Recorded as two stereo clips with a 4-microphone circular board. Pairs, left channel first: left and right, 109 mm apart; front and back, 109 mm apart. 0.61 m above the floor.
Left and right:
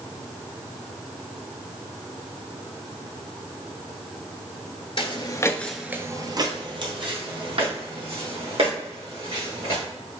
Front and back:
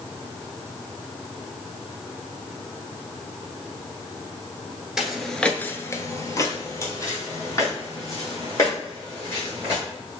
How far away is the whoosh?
No whoosh in this recording.